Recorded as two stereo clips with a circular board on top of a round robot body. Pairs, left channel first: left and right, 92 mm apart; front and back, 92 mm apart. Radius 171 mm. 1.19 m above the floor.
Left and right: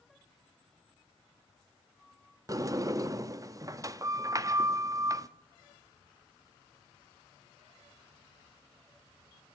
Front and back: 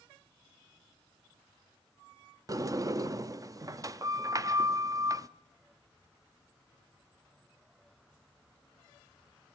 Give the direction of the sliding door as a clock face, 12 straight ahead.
5 o'clock.